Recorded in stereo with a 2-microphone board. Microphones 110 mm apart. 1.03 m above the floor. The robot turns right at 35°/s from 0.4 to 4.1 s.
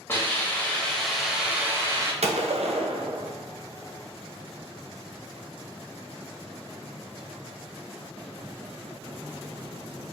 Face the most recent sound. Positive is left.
turn(degrees=-20)